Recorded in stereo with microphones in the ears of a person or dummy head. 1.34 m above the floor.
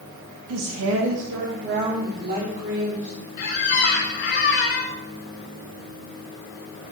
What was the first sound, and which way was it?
A woman speaking, 85° right.